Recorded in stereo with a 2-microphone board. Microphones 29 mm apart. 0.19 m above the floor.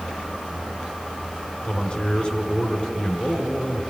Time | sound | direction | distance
1.6 | a man speaking | 35° left (ahead or behind) | 1.5 m